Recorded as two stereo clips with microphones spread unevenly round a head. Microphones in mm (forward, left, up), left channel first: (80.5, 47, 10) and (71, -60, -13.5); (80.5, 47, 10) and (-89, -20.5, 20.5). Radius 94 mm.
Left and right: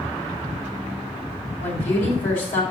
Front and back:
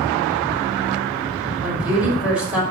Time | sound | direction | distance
1.6 | a woman speaking | 115° left | 5 m